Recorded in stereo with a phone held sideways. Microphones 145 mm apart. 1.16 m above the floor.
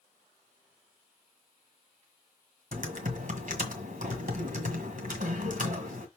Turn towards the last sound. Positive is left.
turn(degrees=-60)  # may be behind; listen again after turning